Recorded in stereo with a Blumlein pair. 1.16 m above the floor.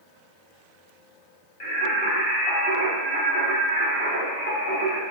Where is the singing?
50° left, 1.9 m.